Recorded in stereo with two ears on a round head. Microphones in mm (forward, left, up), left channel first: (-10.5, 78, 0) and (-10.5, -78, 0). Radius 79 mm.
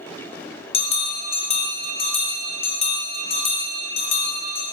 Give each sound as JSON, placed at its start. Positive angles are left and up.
{"t": 0.7, "sound": "a bell", "side_deg": 35, "distance_m": 1.0}